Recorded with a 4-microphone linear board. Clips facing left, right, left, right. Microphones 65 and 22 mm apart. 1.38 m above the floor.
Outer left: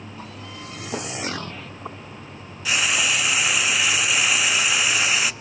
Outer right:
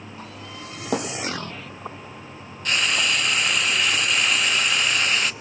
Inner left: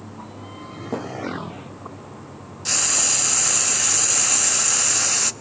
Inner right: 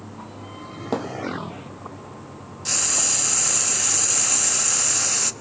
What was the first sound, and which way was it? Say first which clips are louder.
A thud: outer right 5 dB, inner right 2 dB; 65° right (ahead or behind).